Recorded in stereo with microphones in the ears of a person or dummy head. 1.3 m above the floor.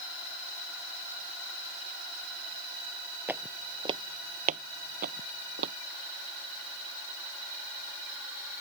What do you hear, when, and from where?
3.3 s footsteps: 10° right (ahead or behind); by 5.7 s 65° right (ahead or behind)